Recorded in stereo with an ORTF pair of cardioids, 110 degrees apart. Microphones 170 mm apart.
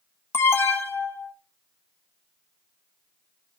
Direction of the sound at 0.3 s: 15° left.